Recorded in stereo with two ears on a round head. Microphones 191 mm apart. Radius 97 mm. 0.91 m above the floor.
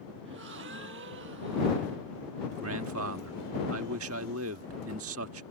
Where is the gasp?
60° right (ahead or behind).